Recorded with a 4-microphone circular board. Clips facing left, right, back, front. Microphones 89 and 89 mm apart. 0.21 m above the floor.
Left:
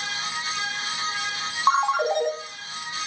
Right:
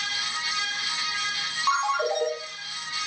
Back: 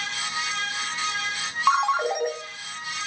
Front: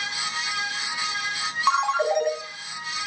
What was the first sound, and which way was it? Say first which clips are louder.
A ringtone: left 3 dB, even; 100° left.